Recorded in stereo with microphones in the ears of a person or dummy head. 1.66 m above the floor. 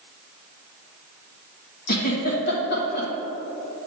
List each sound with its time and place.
1.9 s a giggle: 55° left (ahead or behind), 1.5 m